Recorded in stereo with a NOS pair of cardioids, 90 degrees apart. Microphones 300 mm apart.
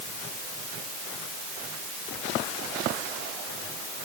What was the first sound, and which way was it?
Only background noise.